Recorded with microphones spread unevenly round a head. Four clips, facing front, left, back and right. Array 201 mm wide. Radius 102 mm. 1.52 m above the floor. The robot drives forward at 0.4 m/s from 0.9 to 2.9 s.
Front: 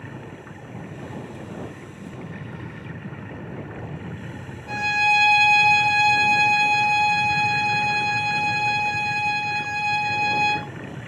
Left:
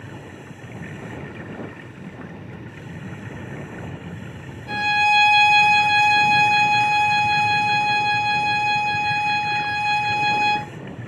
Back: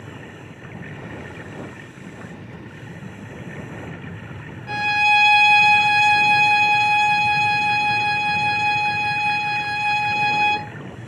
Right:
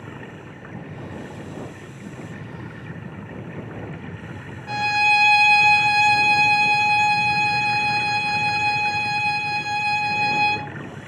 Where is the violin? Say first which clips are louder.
Left 1 dB, back 3 dB; straight behind, 1.2 m.